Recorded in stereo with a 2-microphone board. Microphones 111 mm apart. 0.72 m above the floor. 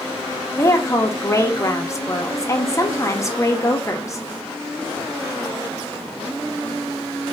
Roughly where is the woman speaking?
Left.